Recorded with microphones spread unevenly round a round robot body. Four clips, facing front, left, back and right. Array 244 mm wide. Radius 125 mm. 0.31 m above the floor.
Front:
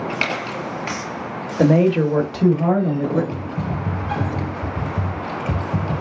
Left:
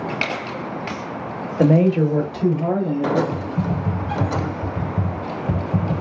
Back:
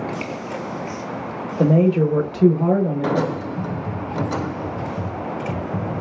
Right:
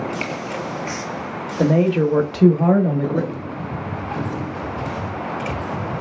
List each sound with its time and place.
1.6 s a woman speaking: 50° left, 1.0 m; by 3.2 s 80° right, 1.8 m
3.3 s typing on a keyboard: 55° left, 1.2 m